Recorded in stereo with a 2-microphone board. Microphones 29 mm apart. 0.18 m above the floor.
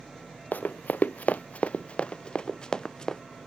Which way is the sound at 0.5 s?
80° left.